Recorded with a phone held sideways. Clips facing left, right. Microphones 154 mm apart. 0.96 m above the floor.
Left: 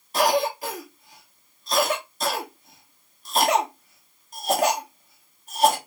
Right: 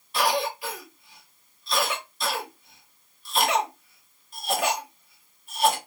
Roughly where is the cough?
Left.